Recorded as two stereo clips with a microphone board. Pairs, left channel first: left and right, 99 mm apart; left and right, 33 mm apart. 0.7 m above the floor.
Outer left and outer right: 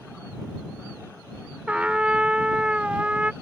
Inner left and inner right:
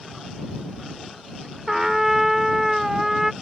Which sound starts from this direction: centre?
A trumpet, at 1.7 s.